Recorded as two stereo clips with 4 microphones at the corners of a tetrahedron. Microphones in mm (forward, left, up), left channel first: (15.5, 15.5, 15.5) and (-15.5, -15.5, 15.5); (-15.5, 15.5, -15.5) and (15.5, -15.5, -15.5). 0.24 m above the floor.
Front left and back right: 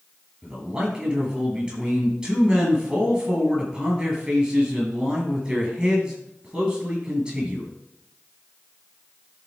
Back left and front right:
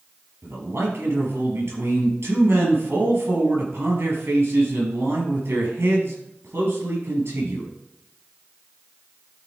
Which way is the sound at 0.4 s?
65° right.